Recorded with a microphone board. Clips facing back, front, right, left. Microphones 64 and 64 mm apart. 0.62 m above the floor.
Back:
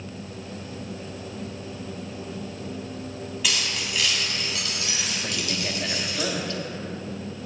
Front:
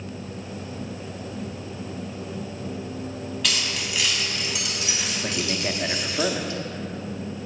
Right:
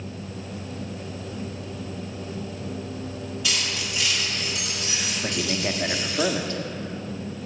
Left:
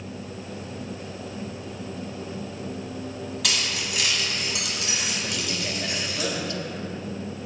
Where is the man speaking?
60° right, 0.7 m.